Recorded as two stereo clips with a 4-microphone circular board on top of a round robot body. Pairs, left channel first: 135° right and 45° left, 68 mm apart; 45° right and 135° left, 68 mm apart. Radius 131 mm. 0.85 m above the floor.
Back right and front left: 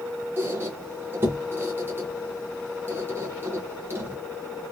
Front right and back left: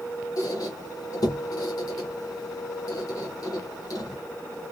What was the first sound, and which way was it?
A squeak, 10° right.